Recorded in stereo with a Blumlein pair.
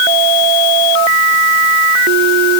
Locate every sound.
Only background noise.